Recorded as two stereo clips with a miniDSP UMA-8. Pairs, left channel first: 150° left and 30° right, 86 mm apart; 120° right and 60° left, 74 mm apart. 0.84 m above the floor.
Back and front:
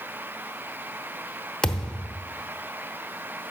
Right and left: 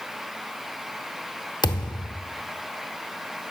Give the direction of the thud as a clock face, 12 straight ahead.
4 o'clock.